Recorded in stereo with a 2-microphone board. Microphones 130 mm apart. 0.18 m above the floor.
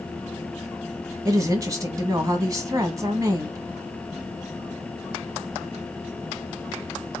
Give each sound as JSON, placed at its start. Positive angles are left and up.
{"t": 1.2, "sound": "a woman speaking", "side_deg": -25, "distance_m": 1.1}